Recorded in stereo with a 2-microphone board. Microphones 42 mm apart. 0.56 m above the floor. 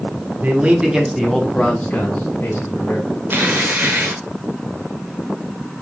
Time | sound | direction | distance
0.4 | a man speaking | 40° right (ahead or behind) | 1.2 m
3.3 | tearing paper | 55° right (ahead or behind) | 1.4 m